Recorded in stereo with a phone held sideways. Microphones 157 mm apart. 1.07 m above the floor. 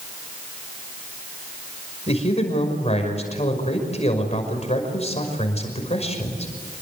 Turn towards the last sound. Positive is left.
turn(degrees=40)  # may be behind; listen again after turning